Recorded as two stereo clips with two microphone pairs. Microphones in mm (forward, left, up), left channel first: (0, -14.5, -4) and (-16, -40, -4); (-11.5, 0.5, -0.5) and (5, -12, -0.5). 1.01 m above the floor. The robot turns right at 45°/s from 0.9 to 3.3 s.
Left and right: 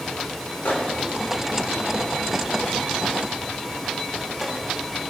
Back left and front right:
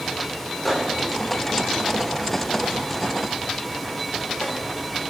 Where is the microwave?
50° left, 2.5 m; by 5.1 s 155° left, 2.5 m.